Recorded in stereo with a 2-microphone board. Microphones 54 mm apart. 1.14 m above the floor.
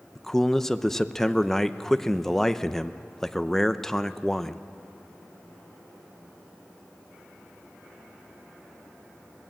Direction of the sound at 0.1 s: 5° left (ahead or behind).